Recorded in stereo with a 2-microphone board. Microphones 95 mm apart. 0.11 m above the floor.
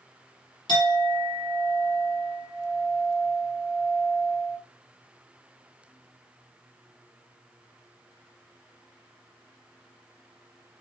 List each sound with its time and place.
0.7 s a clink: 55° left (ahead or behind), 1.4 m